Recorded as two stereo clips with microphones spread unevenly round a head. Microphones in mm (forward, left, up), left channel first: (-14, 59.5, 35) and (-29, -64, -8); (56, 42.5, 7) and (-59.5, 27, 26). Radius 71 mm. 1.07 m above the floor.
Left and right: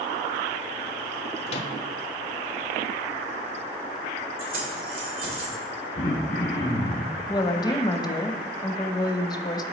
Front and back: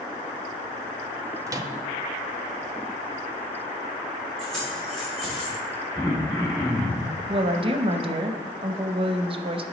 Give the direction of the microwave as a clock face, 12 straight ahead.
8 o'clock.